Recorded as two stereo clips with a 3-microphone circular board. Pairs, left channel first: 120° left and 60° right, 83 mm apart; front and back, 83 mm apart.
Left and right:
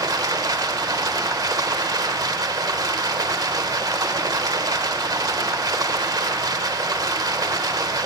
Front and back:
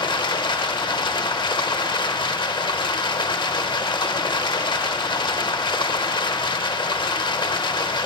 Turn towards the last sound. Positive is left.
turn(degrees=-15)